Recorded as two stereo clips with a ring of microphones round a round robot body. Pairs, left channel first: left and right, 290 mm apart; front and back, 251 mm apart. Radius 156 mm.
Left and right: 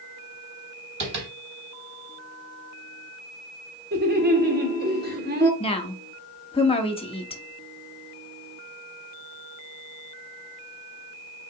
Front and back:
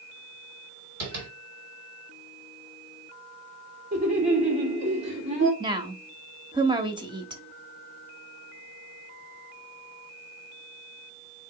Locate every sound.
1.0 s tapping: 135° right, 3 m
3.9 s laughter: 130° right, 1.8 m
5.6 s a woman speaking: 135° left, 0.9 m